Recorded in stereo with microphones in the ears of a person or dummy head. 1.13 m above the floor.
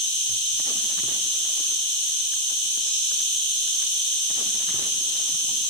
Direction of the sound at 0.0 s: 30° right (ahead or behind).